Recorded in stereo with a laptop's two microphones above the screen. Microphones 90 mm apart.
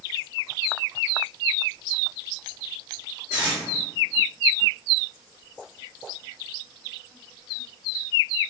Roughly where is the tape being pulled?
Right.